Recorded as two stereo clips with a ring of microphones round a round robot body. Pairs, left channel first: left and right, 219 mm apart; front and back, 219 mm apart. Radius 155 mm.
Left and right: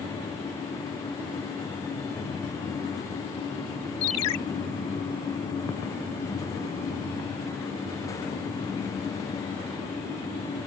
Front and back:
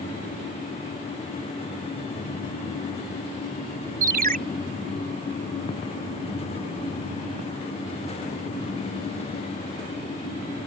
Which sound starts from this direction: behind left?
A ringtone, at 4.0 s.